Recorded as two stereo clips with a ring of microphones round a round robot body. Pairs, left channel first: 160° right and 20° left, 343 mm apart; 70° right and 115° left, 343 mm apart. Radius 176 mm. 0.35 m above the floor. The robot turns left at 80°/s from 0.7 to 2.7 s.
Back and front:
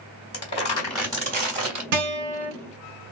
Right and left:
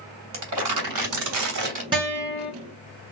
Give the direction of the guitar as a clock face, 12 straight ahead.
11 o'clock.